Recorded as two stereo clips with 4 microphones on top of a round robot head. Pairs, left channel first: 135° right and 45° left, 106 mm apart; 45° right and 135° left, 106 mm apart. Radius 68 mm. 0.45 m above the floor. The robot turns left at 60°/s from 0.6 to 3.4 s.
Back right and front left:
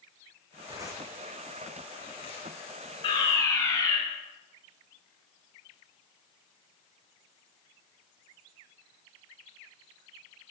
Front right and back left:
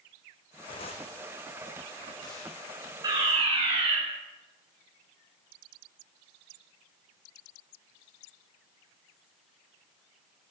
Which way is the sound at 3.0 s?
170° right.